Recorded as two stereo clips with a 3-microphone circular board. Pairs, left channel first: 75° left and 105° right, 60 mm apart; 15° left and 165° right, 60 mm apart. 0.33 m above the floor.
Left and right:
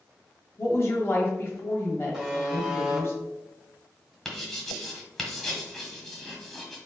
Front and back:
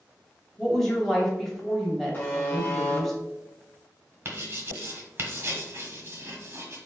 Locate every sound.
0.6 s a woman speaking: 100° left, 1.4 m
2.1 s a buzzer: 30° right, 1.6 m
4.2 s writing: 155° left, 1.1 m